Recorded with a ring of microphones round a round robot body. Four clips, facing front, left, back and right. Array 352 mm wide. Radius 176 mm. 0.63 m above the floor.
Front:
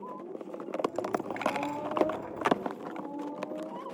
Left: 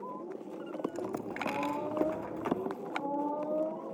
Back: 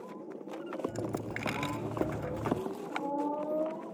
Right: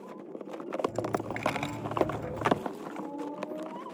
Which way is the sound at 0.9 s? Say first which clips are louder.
Right 5 dB, front 4 dB; 130° right.